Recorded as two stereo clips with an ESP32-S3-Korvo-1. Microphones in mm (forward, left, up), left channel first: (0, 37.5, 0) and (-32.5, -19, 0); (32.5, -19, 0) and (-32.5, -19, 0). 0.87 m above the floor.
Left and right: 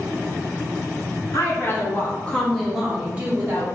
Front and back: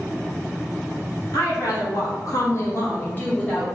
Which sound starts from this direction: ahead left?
A woman speaking, at 1.3 s.